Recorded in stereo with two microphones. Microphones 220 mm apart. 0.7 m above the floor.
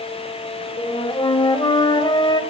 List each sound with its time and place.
0.8 s a flute: 20° left (ahead or behind), 1.1 m